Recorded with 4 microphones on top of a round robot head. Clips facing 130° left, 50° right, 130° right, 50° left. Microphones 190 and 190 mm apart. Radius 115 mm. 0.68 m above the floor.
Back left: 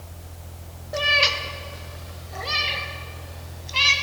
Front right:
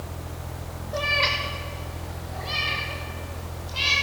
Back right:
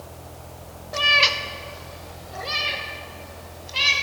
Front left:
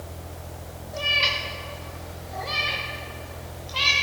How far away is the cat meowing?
About 0.6 m.